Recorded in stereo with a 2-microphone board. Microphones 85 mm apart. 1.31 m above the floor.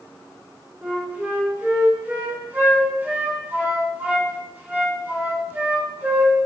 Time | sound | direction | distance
0.8 | a flute | 20° right (ahead or behind) | 3.5 m